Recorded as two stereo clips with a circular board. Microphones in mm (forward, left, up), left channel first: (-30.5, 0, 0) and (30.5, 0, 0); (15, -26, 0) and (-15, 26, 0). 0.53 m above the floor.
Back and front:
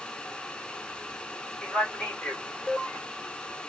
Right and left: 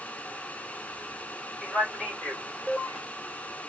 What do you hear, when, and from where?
1.6 s a man speaking: 160° right, 1.3 m